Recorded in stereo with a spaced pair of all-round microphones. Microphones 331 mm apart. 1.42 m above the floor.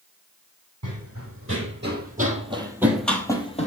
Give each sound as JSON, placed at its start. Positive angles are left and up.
{"t": 0.8, "sound": "running footsteps", "side_deg": -50, "distance_m": 2.5}